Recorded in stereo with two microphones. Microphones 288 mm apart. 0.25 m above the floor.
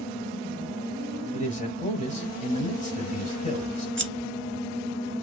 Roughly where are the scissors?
Right.